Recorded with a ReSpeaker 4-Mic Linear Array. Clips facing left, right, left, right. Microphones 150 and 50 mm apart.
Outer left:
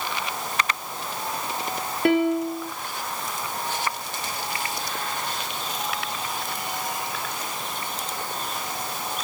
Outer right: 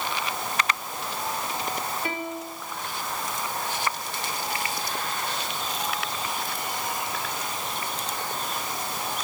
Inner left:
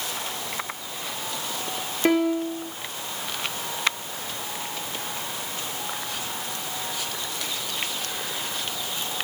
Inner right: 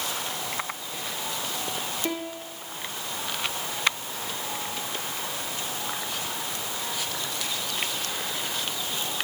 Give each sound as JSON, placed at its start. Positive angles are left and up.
{"t": 2.0, "sound": "a piano", "side_deg": 65, "distance_m": 0.8}